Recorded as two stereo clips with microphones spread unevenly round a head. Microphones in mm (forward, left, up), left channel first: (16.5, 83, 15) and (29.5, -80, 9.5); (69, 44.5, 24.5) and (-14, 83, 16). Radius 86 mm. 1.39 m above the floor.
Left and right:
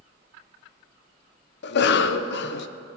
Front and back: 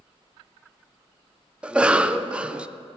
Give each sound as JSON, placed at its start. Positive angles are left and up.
{"t": 1.6, "sound": "a cough", "azimuth_deg": 75, "distance_m": 0.6}